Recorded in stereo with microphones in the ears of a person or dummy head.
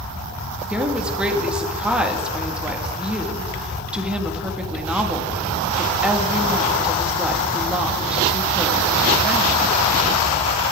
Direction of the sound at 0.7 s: 5° right (ahead or behind).